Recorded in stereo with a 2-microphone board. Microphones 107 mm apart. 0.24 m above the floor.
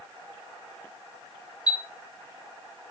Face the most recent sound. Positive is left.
turn(degrees=40)  # may be behind; listen again after turning